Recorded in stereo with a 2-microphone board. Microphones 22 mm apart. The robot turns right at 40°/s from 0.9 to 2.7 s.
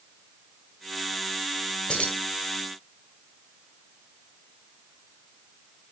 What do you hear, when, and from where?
1.9 s keys jangling: 45° left (ahead or behind), 1.7 m; by 2.2 s 55° left (ahead or behind), 1.7 m